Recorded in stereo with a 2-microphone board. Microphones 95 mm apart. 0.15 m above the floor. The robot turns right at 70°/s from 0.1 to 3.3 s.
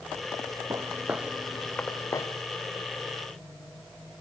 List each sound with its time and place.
0.7 s footsteps: 35° right (ahead or behind), 1.2 m; by 2.3 s 40° left (ahead or behind), 1.8 m